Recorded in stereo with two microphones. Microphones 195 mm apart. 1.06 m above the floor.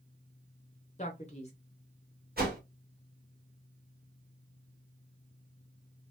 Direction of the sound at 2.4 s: 50° right (ahead or behind).